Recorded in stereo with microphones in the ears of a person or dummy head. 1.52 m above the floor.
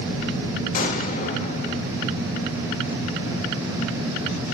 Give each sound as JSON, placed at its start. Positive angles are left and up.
{"t": 0.7, "sound": "an explosion", "side_deg": 45, "distance_m": 1.9}